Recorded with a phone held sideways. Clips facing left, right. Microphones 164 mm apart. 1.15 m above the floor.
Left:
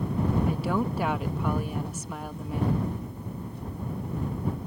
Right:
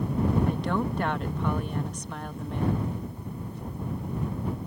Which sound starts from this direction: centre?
A woman speaking, at 0.5 s.